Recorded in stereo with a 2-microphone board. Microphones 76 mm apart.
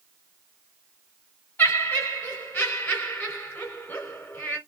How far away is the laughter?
About 1.8 m.